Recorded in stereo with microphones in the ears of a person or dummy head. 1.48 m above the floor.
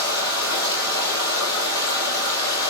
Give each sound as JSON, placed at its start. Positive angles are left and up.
{"t": 0.0, "sound": "running water", "side_deg": 25, "distance_m": 5.0}